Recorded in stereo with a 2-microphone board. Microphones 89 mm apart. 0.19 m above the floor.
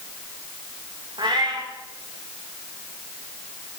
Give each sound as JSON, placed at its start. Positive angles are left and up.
{"t": 1.2, "sound": "a cat meowing", "side_deg": -60, "distance_m": 8.5}